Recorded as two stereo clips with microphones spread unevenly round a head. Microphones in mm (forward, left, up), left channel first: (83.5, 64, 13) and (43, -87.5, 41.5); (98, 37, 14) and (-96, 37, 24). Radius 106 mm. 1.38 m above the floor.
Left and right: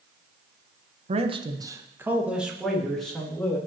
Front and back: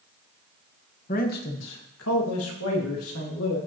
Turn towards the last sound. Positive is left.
turn(degrees=-10)